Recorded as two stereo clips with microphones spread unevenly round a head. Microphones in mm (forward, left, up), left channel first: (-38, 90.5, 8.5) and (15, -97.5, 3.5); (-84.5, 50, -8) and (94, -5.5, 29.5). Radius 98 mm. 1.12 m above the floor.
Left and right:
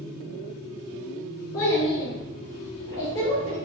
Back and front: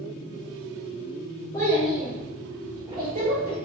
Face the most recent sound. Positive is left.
turn(degrees=30)